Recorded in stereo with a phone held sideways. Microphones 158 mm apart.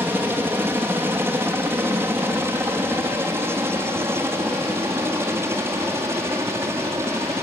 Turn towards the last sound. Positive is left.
turn(degrees=-15)  # may be behind; listen again after turning